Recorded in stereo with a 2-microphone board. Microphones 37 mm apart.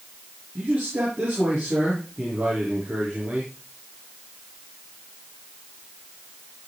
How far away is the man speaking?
About 6.5 m.